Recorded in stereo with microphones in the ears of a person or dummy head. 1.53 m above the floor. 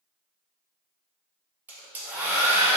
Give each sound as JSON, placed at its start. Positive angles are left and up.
{"t": 1.7, "sound": "a hair dryer", "side_deg": -10, "distance_m": 0.5}